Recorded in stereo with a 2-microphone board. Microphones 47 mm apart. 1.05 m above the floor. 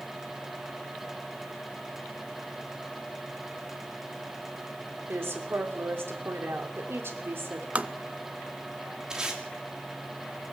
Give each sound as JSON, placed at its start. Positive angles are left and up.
{"t": 5.1, "sound": "a woman speaking", "side_deg": -60, "distance_m": 3.0}
{"t": 7.8, "sound": "tapping", "side_deg": -30, "distance_m": 0.6}
{"t": 9.1, "sound": "tape being pulled", "side_deg": -15, "distance_m": 3.0}